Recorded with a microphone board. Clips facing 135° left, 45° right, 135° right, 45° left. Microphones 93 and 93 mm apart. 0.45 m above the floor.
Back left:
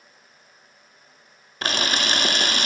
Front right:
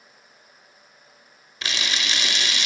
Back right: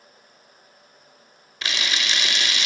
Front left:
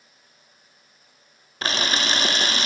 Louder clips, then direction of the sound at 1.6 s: Back left 5 dB, front left 4 dB; 95° left.